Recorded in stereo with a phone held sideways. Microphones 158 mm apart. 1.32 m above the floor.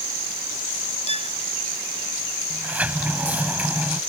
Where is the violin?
40° left (ahead or behind).